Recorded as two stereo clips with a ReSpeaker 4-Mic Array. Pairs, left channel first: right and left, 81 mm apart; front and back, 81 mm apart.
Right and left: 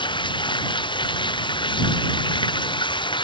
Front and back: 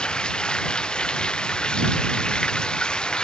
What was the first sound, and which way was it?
Running water, 80° right.